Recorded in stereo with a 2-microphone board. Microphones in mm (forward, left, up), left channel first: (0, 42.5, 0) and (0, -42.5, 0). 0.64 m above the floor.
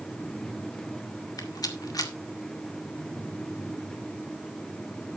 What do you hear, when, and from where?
1.4 s a rattle: 50° left (ahead or behind), 1.8 m